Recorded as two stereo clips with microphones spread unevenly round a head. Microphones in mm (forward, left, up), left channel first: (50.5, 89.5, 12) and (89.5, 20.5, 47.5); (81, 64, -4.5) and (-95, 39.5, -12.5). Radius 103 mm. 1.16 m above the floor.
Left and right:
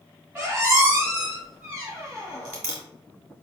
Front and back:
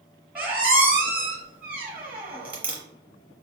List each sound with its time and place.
0.3 s a squeak: 90° right, 1.0 m